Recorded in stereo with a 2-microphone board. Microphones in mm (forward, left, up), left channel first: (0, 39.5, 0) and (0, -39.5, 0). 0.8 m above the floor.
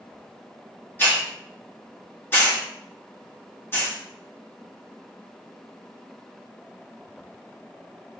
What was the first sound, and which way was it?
A hiss, 25° left (ahead or behind).